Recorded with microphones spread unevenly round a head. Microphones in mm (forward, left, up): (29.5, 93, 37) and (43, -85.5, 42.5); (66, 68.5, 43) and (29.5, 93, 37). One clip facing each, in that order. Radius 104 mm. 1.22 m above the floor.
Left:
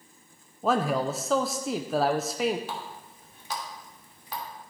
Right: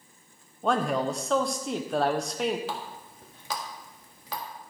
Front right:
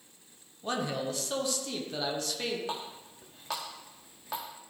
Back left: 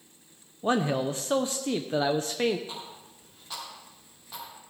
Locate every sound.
0.6 s a man speaking: straight behind, 0.6 m
2.7 s a running tap: 70° right, 1.7 m